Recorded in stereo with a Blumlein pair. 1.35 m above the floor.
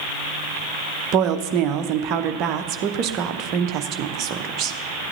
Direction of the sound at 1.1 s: 35° right.